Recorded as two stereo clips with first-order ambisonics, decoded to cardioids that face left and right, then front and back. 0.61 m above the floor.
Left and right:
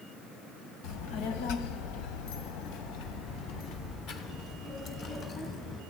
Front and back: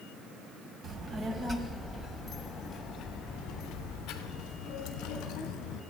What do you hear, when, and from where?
0.8 s a child speaking: 120° left, 2.0 m; by 5.8 s 35° left, 4 m